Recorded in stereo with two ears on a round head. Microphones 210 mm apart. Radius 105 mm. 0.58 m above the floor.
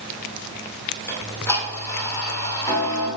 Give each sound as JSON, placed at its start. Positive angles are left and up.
{"t": 1.1, "sound": "ticking", "side_deg": 10, "distance_m": 2.0}